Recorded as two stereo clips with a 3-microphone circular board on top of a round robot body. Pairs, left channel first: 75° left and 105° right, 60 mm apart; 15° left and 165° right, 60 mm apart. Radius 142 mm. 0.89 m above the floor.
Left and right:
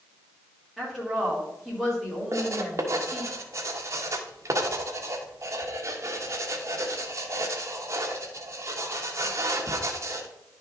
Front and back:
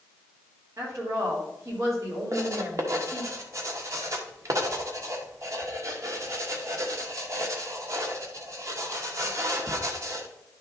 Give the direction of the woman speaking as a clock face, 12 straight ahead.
6 o'clock.